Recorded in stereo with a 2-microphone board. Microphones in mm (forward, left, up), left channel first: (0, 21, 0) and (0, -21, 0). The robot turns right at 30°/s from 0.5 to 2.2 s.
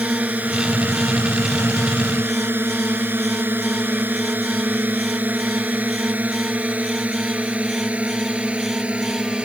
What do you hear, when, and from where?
0.0 s a drone: 40° right (ahead or behind); by 9.4 s 25° right (ahead or behind)